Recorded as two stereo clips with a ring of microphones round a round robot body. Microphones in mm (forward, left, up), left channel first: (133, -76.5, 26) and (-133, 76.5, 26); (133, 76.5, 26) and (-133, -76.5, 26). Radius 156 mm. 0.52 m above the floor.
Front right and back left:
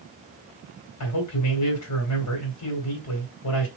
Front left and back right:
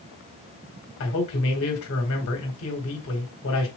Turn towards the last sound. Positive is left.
turn(degrees=-10)